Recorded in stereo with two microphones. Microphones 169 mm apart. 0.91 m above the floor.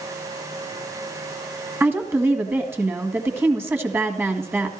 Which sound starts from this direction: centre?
A woman speaking, at 1.8 s.